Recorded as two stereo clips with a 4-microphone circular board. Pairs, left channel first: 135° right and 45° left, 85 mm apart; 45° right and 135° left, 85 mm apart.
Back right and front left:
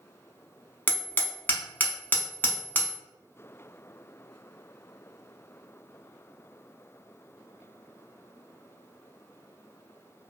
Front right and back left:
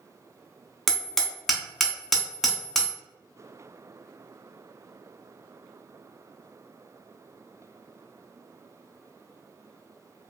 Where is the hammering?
130° right, 0.6 m.